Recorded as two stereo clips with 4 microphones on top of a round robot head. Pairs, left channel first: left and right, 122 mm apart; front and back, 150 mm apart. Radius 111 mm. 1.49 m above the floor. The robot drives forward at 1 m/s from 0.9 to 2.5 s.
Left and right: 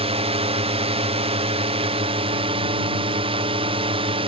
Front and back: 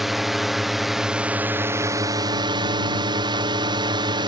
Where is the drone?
90° right; by 4.3 s 120° right.